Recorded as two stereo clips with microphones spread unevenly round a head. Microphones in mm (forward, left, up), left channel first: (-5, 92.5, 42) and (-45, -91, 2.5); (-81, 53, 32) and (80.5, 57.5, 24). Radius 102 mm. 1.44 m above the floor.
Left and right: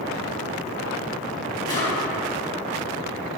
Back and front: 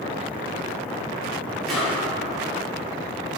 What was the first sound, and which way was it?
A drawer, 100° left.